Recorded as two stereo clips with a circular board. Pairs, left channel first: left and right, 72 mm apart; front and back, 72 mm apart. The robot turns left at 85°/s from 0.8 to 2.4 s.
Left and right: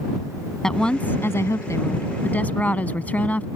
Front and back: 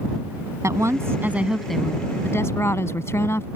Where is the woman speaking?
165° left; by 3.5 s 30° left.